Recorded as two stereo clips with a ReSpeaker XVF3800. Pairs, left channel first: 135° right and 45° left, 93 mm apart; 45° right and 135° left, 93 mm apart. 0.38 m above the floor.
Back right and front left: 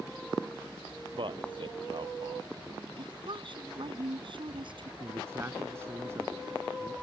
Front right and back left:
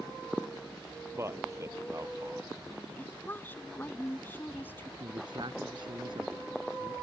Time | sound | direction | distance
1.2 | a man speaking | 75° left | ?
3.0 | a woman speaking | 20° left | ?
5.0 | a man speaking | 105° left | ?